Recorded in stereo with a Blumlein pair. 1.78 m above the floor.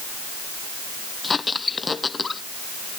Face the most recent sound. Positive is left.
turn(degrees=15)